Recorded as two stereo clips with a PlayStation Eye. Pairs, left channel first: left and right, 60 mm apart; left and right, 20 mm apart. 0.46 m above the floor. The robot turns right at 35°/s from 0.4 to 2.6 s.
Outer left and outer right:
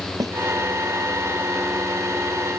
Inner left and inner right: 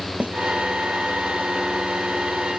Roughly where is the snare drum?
Right.